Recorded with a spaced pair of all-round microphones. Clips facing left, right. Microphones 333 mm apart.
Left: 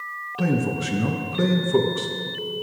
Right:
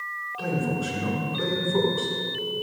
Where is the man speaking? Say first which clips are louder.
Left 4 dB; 85° left, 1.6 m.